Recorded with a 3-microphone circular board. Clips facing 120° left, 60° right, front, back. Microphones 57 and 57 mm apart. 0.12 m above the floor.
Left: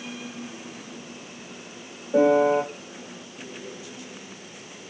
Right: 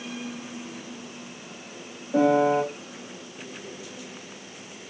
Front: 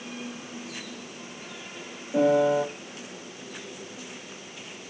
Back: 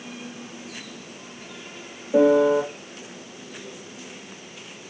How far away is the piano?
About 4 m.